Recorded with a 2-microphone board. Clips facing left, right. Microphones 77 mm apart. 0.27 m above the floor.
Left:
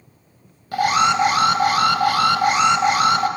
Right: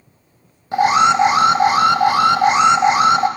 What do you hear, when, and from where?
0.7 s an alarm: 25° right (ahead or behind), 0.7 m